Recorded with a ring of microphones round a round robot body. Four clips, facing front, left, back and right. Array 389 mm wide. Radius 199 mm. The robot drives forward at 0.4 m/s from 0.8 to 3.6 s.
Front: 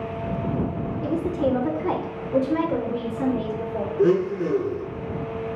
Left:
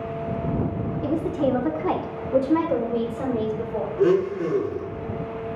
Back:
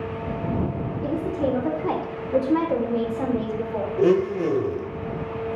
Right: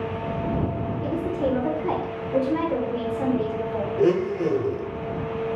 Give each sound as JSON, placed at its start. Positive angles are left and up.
{"t": 1.0, "sound": "a woman speaking", "azimuth_deg": 50, "distance_m": 0.8}
{"t": 4.0, "sound": "a blender", "azimuth_deg": -155, "distance_m": 0.7}